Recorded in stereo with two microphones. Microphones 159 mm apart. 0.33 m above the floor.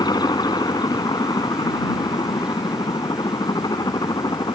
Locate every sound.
0.0 s a helicopter: 25° left (ahead or behind)